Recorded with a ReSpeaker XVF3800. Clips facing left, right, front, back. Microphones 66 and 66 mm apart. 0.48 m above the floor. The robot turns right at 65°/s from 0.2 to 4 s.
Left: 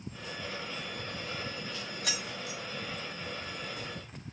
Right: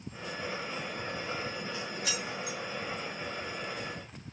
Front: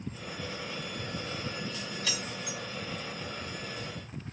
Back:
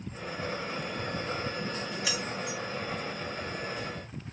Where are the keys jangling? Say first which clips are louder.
Right 1 dB, back 3 dB; 105° left, 1.3 m; by 2.6 s 145° left, 1.3 m.